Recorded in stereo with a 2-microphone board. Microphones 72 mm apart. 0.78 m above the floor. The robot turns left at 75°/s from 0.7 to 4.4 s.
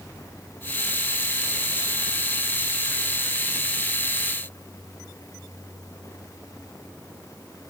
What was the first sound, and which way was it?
Only background noise.